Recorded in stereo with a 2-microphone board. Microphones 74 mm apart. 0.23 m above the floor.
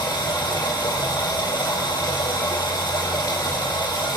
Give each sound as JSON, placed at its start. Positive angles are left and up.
{"t": 0.0, "sound": "running water", "side_deg": 65, "distance_m": 1.5}